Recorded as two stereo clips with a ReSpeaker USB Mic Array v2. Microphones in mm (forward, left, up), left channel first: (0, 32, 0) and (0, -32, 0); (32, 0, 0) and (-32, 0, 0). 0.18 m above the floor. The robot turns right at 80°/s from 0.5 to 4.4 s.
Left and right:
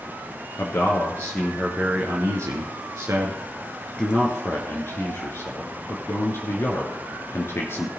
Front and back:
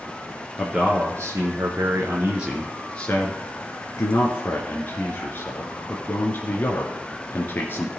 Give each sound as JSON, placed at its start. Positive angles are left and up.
{"t": 0.6, "sound": "a man speaking", "azimuth_deg": 105, "distance_m": 2.5}